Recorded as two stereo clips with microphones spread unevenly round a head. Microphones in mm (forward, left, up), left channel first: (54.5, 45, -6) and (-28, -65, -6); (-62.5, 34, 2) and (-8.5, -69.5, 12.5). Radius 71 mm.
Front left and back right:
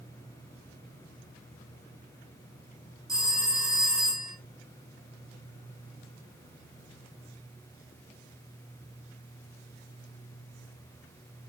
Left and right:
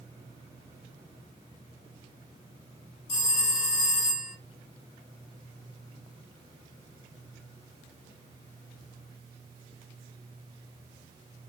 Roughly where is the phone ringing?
Behind left.